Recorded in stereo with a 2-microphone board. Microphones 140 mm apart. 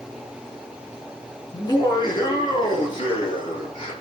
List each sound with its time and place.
1.5 s laughter: 30° left (ahead or behind), 5 m; by 3.9 s 35° left (ahead or behind), 8.5 m